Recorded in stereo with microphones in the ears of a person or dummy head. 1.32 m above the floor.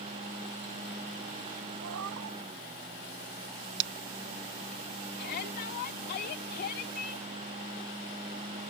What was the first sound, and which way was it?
A cat meowing, 70° right (ahead or behind).